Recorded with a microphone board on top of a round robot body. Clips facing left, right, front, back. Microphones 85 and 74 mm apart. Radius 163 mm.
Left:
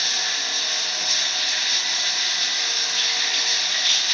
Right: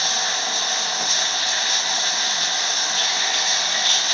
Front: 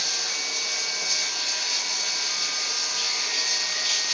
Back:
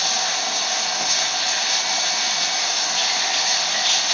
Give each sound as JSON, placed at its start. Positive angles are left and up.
{"t": 0.0, "sound": "running water", "azimuth_deg": -150, "distance_m": 0.8}